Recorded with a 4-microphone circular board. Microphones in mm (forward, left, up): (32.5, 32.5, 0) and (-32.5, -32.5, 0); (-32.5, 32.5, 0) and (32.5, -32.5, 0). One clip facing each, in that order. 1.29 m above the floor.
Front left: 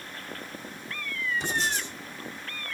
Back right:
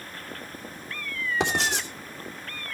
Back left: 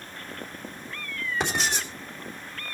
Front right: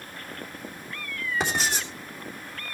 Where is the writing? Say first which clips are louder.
Back right 3 dB, even; 130° right, 3.5 m.